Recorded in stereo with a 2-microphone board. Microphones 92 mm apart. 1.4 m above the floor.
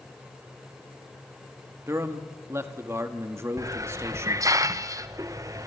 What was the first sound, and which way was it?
A man speaking, 30° right (ahead or behind).